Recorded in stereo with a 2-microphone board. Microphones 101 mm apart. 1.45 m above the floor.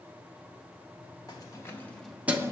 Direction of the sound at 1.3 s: 40° left (ahead or behind).